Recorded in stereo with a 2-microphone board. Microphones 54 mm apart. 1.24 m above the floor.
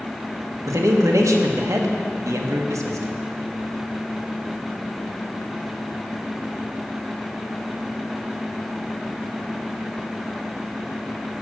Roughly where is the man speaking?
Right.